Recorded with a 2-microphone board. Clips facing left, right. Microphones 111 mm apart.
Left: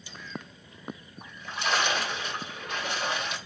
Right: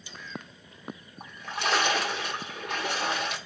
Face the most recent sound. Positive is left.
turn(degrees=-65)  # may be behind; listen again after turning